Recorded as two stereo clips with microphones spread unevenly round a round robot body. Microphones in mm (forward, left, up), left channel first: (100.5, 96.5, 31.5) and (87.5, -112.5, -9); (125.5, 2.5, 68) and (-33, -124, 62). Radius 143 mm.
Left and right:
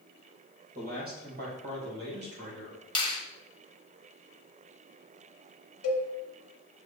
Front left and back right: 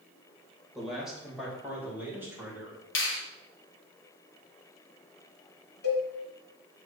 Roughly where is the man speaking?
Ahead right.